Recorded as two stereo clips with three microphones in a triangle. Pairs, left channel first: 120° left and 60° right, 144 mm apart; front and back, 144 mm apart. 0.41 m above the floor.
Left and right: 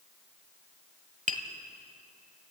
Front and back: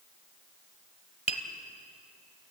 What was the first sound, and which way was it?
Tapping, 40° right.